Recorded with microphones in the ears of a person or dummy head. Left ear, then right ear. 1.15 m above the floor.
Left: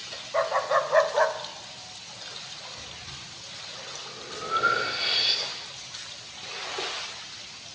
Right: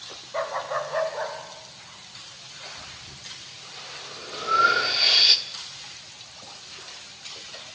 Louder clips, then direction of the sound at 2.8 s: Left 1 dB; 35° right (ahead or behind).